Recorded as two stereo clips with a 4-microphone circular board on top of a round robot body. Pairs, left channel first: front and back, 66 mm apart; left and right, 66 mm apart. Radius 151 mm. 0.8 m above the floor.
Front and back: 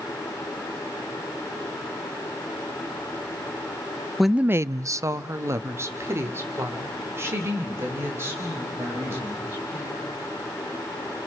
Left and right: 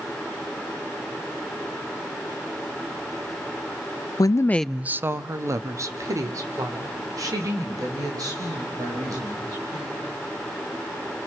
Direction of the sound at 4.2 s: 90° left.